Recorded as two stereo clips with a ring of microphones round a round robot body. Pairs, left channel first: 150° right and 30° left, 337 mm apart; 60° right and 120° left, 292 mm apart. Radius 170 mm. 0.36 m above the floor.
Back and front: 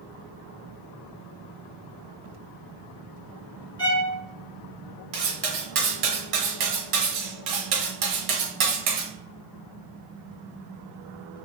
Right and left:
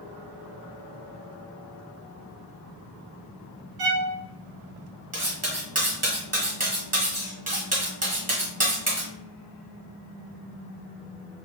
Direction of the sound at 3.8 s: 130° left.